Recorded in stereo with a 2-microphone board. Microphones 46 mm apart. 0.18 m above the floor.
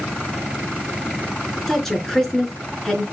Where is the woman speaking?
5° left (ahead or behind), 2.5 m.